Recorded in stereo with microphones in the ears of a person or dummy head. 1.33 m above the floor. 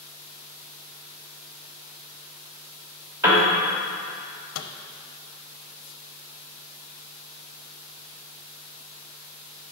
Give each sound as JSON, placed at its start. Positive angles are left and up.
{"t": 3.2, "sound": "a piano", "side_deg": -15, "distance_m": 1.5}
{"t": 4.5, "sound": "a microwave", "side_deg": 75, "distance_m": 0.6}